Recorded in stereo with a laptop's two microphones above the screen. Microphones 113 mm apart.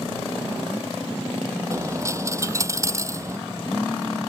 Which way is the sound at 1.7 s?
25° right (ahead or behind).